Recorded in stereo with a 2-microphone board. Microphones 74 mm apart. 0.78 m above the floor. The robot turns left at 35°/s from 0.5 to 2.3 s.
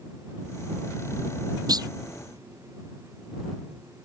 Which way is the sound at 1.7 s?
60° right (ahead or behind).